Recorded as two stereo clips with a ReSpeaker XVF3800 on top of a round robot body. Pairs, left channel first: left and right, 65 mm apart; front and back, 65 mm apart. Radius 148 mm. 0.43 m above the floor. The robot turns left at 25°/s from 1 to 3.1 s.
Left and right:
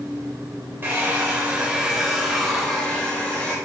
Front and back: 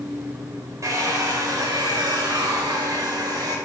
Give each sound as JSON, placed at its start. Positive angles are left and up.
{"t": 0.8, "sound": "a hair dryer", "azimuth_deg": -145, "distance_m": 1.9}